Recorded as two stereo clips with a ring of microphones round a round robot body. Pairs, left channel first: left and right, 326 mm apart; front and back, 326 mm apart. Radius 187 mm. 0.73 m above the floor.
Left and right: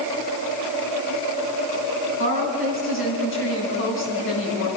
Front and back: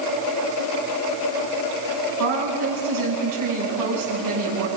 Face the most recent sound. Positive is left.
turn(degrees=140)